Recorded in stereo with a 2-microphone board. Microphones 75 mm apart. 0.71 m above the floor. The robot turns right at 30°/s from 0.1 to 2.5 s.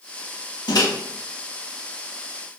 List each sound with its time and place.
0.7 s a microwave: 65° left (ahead or behind), 0.7 m